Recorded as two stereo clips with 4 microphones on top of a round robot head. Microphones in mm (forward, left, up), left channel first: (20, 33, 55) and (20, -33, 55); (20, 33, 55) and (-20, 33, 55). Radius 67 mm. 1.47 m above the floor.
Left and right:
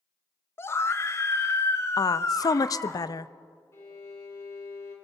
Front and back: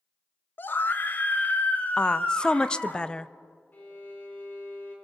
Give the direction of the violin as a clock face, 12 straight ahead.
11 o'clock.